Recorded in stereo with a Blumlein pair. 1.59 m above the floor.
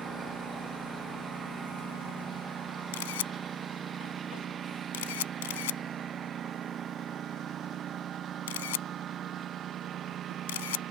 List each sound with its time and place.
0.0 s a lawn mower: 20° right; by 10.9 s 30° right
2.9 s a camera shutter: 55° left